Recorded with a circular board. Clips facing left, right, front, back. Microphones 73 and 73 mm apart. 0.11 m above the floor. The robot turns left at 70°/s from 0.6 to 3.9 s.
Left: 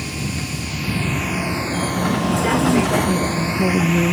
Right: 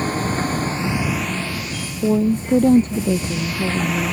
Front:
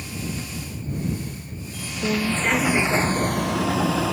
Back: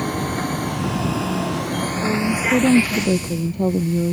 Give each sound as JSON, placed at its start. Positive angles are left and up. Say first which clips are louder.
{"t": 0.0, "sound": "a vehicle", "louder": "right 6 dB, back 9 dB", "azimuth_deg": -140}
{"t": 2.0, "sound": "a woman speaking", "louder": "right 3 dB, even", "azimuth_deg": -85}